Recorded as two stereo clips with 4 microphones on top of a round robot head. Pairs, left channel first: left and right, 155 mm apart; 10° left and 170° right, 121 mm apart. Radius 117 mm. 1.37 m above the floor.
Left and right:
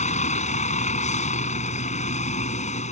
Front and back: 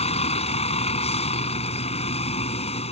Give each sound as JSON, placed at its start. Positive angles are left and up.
{"t": 0.0, "sound": "a vehicle", "azimuth_deg": 45}